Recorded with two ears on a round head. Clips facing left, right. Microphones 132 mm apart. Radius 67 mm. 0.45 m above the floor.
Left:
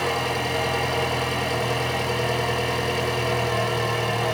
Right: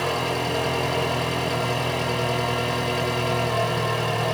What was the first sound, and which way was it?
An engine running, centre (ahead or behind).